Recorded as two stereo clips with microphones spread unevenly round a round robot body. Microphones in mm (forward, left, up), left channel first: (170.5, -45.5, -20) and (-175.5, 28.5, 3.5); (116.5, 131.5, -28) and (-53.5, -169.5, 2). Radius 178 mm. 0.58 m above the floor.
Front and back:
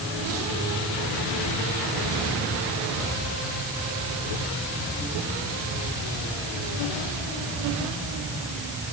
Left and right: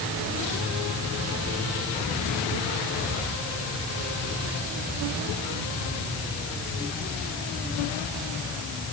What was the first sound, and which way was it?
Only background noise.